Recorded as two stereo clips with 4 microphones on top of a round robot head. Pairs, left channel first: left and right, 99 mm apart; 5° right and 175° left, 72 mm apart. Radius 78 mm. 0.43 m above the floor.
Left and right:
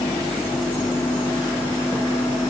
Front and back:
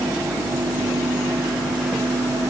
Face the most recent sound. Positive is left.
No sound to turn to.